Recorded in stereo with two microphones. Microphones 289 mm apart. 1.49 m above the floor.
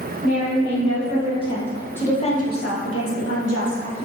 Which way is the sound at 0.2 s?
55° right (ahead or behind).